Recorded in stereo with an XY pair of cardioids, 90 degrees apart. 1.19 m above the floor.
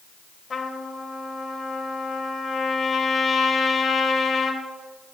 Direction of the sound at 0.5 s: 40° left.